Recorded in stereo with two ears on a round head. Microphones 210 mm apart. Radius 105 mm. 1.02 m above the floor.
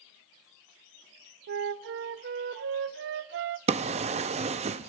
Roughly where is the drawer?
Right.